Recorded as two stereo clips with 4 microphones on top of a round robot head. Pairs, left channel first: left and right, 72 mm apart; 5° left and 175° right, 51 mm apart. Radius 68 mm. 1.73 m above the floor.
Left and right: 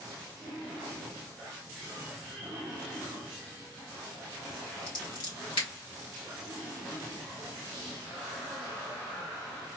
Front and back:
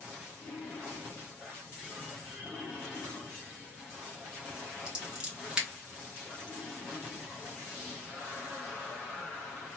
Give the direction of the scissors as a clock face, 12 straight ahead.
8 o'clock.